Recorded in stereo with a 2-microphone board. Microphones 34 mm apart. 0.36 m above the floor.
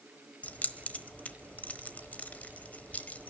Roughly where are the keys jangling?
Left.